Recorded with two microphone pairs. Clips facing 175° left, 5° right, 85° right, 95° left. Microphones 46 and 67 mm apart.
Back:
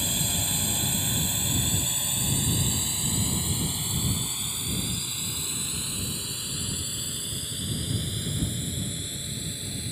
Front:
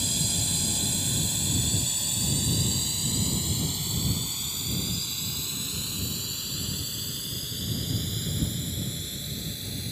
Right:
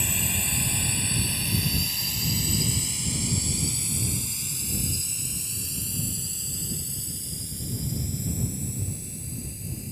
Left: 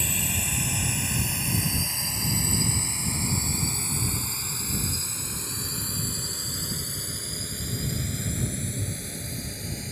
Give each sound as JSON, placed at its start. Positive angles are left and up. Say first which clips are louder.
{"t": 0.0, "sound": "a drone", "louder": "back 1 dB, even", "azimuth_deg": -175}